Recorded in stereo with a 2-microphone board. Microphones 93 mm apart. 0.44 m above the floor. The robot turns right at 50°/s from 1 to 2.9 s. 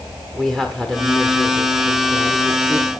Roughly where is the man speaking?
Behind.